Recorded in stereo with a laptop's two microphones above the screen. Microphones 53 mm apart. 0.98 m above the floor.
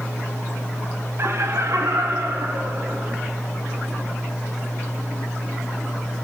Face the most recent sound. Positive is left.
turn(degrees=-65)  # may be behind; listen again after turning